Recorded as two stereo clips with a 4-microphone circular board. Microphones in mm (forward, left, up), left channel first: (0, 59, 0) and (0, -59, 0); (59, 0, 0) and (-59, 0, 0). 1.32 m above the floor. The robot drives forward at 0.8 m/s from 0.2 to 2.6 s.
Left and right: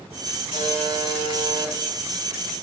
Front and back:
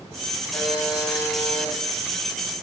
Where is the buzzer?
60° left, 5 m; by 1.7 s 70° left, 4.5 m.